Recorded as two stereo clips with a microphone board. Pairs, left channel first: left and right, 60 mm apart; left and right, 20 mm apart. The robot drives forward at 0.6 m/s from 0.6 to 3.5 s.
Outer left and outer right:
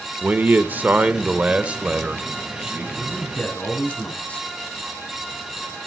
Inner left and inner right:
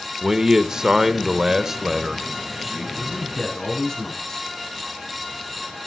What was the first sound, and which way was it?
A man speaking, 30° right (ahead or behind).